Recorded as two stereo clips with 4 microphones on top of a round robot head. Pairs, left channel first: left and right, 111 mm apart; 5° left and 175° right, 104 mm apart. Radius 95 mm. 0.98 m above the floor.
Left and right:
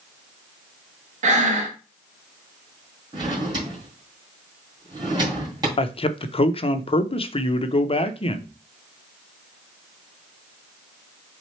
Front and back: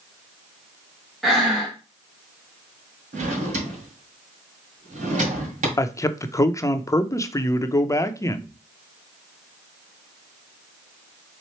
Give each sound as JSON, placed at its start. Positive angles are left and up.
{"t": 1.2, "sound": "breathing", "azimuth_deg": -85, "distance_m": 0.9}
{"t": 3.1, "sound": "a drawer", "azimuth_deg": -155, "distance_m": 1.9}
{"t": 5.8, "sound": "a man speaking", "azimuth_deg": 65, "distance_m": 0.7}